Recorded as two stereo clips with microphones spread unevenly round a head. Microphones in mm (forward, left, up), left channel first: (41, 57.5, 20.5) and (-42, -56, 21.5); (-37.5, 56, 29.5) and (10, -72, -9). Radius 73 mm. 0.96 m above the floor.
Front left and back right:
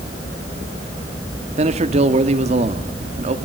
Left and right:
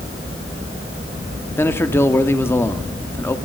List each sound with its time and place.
1.6 s a man speaking: 170° right, 1.9 m